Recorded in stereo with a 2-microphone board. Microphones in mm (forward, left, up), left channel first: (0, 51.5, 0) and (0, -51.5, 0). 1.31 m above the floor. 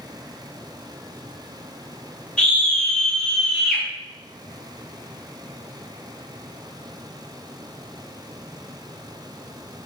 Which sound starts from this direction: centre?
A scream, at 2.4 s.